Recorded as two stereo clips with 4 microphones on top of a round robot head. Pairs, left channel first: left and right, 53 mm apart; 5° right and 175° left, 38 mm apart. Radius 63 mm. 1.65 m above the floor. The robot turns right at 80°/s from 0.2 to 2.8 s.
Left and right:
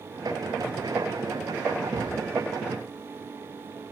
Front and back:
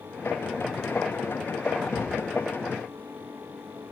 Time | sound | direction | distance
1.9 | a cupboard door | 80° right | 6 m